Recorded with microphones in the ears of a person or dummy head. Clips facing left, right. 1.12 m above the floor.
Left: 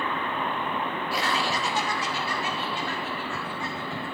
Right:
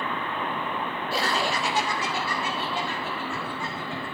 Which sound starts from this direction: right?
Laughter, at 1.1 s.